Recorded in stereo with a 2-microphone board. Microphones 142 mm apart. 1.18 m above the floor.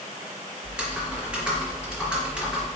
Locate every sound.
0.6 s typing on a keyboard: 5° right (ahead or behind), 4 m